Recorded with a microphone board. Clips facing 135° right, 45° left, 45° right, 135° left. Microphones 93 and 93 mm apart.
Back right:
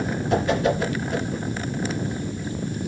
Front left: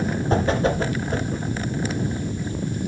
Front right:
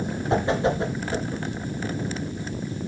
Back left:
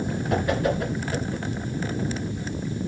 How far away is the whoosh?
About 2.5 m.